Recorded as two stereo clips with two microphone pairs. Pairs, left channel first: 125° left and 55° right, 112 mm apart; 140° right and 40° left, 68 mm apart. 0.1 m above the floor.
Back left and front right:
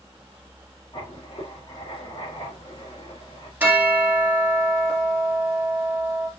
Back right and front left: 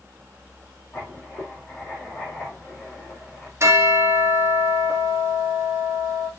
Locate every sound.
0.9 s writing: 155° left, 5 m
3.6 s a bell: 15° left, 2 m